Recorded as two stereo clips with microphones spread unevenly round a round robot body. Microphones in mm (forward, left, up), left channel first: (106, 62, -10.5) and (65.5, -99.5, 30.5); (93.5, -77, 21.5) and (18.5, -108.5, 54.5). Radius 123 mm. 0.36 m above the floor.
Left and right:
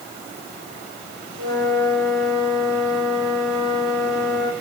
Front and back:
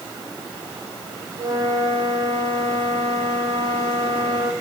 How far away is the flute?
About 5.5 m.